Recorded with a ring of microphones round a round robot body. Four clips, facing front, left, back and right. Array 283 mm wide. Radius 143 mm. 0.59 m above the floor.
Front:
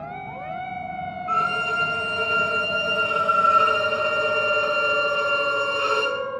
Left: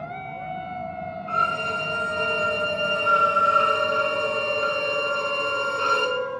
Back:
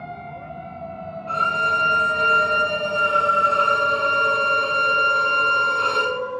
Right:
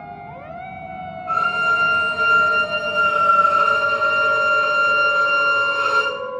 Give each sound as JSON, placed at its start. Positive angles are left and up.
{"t": 1.3, "sound": "a violin", "azimuth_deg": -150, "distance_m": 2.5}